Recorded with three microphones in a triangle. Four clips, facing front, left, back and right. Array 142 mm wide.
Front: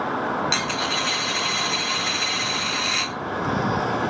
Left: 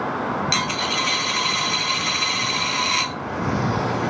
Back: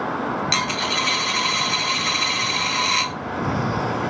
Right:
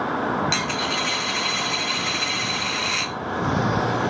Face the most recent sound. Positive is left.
turn(degrees=145)